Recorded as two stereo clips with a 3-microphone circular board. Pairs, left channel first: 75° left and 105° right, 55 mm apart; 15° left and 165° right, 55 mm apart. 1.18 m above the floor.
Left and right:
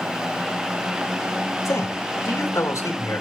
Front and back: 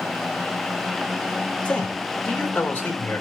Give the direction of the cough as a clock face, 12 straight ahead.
I don't hear a cough.